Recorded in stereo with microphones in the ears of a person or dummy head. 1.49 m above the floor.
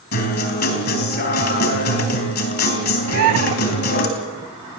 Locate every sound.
0.1 s a guitar: 50° left (ahead or behind), 3.5 m
3.1 s a bird: 50° right (ahead or behind), 0.6 m